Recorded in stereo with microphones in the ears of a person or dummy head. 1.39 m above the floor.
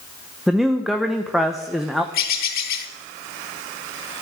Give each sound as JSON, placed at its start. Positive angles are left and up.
{"t": 0.5, "sound": "a man speaking", "side_deg": 0, "distance_m": 0.8}
{"t": 2.1, "sound": "a bird", "side_deg": 50, "distance_m": 0.9}